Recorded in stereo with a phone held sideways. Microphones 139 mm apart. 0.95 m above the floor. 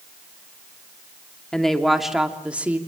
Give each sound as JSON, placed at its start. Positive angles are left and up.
{"t": 1.5, "sound": "a woman speaking", "side_deg": 5, "distance_m": 2.5}